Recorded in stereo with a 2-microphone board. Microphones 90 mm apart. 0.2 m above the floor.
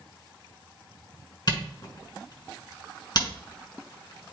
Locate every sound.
1.5 s a camera shutter: 50° left (ahead or behind), 2 m